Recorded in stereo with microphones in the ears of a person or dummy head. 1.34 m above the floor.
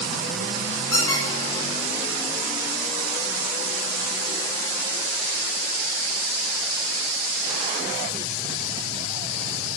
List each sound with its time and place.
0.9 s a squeak: 25° left (ahead or behind), 3 m